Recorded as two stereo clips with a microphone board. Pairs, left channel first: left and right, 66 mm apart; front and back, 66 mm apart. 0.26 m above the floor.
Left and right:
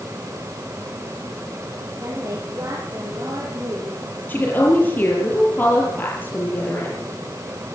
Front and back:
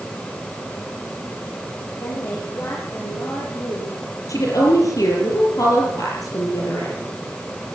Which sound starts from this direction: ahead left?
A woman speaking, at 4.3 s.